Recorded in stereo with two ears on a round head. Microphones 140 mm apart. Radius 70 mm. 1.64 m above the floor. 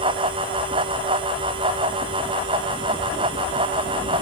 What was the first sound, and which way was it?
Only background noise.